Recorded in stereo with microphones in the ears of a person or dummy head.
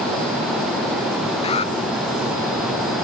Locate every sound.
1.4 s an alarm: 35° left (ahead or behind)